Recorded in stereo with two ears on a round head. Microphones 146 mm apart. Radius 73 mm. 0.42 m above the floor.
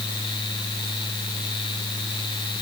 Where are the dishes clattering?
I don't hear dishes clattering.